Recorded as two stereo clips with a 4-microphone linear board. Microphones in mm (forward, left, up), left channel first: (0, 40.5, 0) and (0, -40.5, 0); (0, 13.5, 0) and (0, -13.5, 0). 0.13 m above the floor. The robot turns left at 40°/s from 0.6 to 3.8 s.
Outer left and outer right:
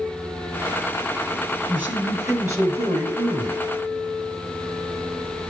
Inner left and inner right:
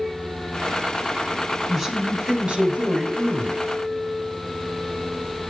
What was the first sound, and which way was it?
A man speaking, 25° right.